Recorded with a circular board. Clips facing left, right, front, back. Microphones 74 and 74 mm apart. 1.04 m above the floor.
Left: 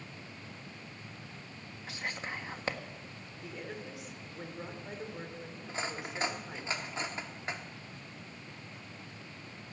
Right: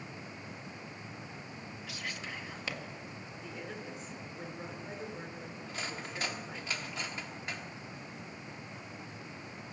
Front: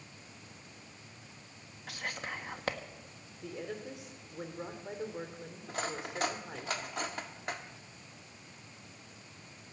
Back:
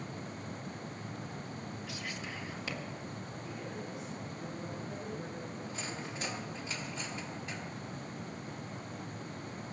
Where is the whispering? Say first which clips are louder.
Left 4 dB, front 7 dB; 35° left, 1.6 m.